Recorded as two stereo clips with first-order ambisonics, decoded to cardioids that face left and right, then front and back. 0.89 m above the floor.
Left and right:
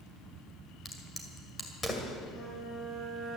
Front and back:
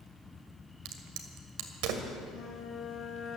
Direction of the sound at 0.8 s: 170° left.